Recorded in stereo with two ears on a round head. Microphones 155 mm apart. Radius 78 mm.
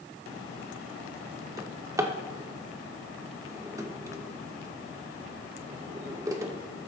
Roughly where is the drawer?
Centre.